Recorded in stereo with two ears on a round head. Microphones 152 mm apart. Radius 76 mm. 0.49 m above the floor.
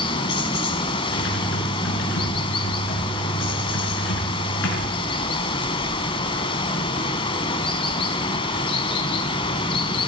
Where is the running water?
30° left (ahead or behind), 1.0 m.